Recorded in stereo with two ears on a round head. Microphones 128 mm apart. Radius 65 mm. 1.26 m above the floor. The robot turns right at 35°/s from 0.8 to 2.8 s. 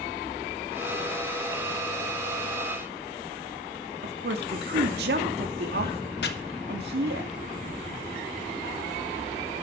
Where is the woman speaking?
80° right, 3 m.